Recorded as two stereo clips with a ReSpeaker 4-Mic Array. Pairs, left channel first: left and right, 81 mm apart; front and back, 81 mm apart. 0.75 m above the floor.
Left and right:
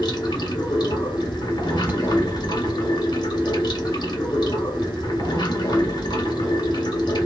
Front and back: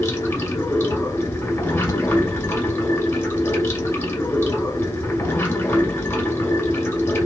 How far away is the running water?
About 1.1 m.